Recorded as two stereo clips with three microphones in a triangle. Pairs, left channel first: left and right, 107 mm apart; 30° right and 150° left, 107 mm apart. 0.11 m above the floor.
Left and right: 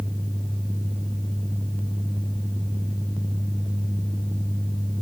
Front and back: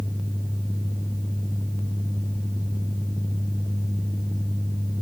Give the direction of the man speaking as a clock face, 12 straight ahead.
No man speaking in this recording.